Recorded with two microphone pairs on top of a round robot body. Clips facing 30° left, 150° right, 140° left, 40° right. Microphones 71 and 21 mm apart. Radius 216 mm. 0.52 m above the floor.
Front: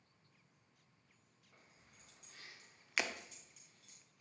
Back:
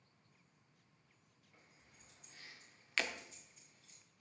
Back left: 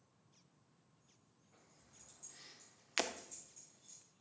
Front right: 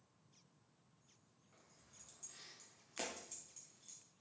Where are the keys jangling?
30° left, 5 m; by 4.0 s 10° left, 4 m.